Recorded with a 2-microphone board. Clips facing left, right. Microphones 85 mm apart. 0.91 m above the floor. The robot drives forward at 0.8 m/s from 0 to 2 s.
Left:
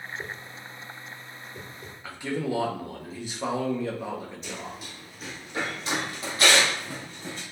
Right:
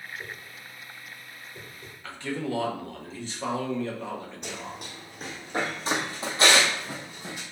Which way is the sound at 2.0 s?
10° left (ahead or behind).